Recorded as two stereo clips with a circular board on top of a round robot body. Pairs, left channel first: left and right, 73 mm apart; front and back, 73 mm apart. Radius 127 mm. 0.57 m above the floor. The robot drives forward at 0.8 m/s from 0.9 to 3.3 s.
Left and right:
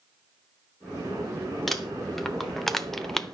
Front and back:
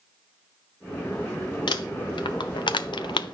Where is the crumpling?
Straight ahead, 2.0 m; by 3.3 s 5° left, 0.7 m.